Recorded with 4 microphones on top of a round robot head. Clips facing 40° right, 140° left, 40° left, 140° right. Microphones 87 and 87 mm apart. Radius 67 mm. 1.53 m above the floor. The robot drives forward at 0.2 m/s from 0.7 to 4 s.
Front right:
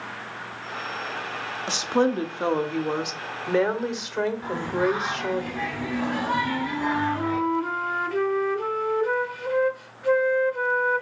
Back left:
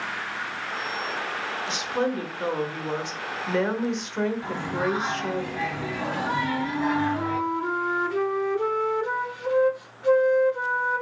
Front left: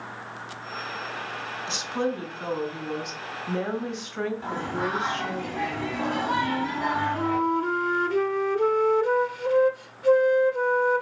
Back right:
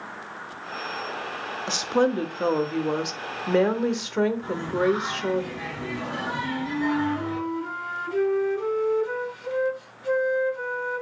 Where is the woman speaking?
95° right, 0.7 m; by 5.4 s 125° right, 0.9 m.